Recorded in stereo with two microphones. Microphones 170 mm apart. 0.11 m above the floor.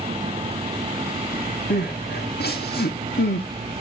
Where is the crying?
70° left (ahead or behind), 4.5 m.